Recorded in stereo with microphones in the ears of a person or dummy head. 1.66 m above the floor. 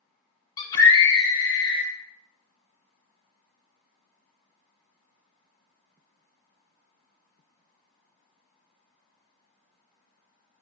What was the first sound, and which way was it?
A scream, 25° left (ahead or behind).